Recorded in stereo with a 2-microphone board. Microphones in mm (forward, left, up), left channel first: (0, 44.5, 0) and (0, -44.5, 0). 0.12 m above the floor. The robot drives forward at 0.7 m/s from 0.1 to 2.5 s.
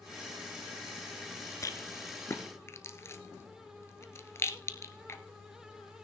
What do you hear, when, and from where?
1.6 s a rattle: 40° left (ahead or behind), 1.1 m; by 5.2 s 30° left (ahead or behind), 1.4 m